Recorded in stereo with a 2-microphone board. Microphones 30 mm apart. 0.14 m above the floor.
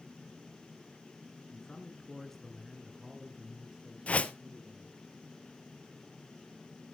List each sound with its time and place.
1.5 s a man speaking: 35° left (ahead or behind), 1.7 m; by 5.0 s 35° right (ahead or behind), 3.5 m
4.1 s a whoosh: 50° left (ahead or behind), 0.7 m